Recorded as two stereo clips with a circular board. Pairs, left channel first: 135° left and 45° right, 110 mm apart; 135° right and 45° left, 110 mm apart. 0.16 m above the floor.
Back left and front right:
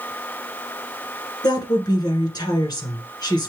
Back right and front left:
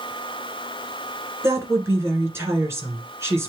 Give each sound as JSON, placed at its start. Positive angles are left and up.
{"t": 1.4, "sound": "a woman speaking", "azimuth_deg": 100, "distance_m": 1.6}